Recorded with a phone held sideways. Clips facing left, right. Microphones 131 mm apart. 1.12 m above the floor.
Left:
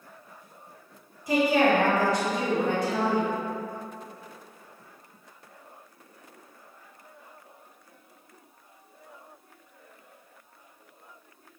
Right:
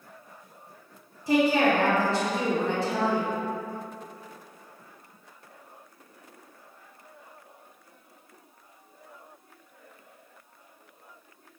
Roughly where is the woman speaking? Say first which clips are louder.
Even; right.